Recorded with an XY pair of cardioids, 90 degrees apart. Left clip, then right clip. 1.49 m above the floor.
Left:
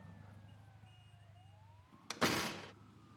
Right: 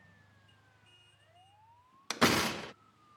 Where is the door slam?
55° right.